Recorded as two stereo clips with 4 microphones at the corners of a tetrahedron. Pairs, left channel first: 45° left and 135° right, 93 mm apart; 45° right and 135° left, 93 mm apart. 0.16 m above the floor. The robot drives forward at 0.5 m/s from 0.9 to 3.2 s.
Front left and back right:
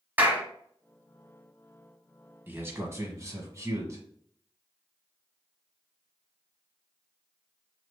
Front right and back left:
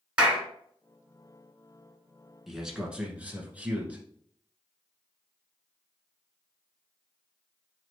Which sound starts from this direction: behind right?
A man speaking, at 2.5 s.